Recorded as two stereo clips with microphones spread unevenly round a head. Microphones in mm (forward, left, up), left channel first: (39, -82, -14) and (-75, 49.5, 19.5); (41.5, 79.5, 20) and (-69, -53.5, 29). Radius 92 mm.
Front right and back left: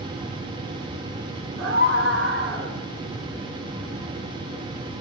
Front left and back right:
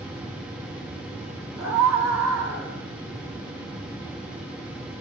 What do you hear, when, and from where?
1.6 s a scream: 160° left, 4 m